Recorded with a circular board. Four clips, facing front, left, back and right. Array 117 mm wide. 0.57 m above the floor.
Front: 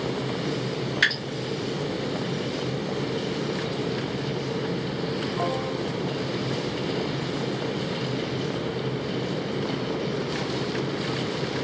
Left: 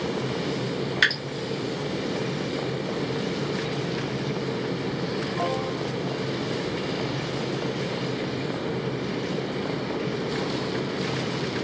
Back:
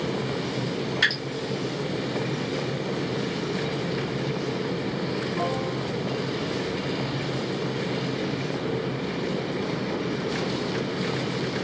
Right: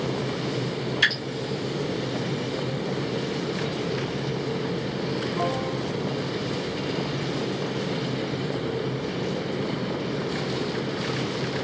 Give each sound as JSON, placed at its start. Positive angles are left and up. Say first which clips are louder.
{"t": 1.0, "sound": "dripping", "louder": "left 2 dB, front 3 dB", "azimuth_deg": 80, "distance_m": 1.7}